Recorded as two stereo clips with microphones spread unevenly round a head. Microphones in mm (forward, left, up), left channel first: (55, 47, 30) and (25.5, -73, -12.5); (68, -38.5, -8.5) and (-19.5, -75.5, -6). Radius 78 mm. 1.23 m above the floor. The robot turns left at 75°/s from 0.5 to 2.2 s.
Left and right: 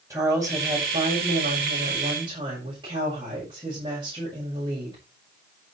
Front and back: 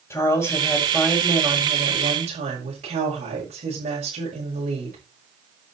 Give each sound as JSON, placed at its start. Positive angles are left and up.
{"t": 0.1, "sound": "a woman speaking", "azimuth_deg": -35, "distance_m": 6.0}